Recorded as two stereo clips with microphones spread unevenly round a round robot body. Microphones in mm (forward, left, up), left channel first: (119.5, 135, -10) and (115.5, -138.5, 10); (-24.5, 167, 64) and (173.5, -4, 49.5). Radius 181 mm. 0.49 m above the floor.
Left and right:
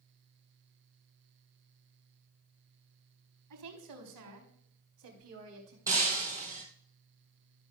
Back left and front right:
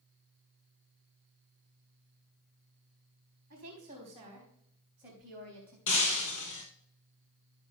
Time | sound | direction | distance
3.5 | a woman speaking | 100° right | 4 m
5.9 | breaking glass | 170° right | 0.9 m